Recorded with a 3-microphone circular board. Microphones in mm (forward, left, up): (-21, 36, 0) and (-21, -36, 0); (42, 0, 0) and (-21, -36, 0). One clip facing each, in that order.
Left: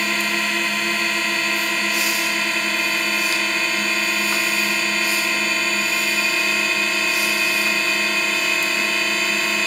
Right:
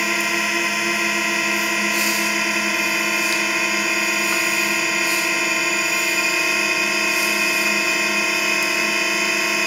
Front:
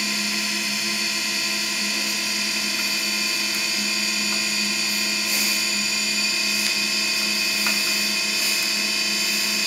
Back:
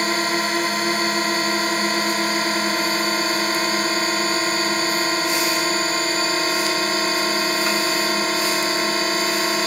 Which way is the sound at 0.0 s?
170° right.